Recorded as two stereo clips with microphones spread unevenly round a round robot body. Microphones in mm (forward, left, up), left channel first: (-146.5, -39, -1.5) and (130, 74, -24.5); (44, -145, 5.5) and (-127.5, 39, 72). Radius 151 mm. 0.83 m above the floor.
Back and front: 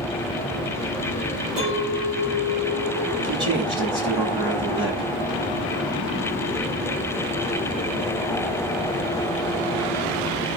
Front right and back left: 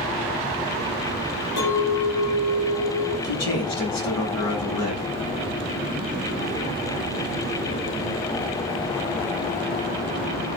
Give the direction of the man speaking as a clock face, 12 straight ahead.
2 o'clock.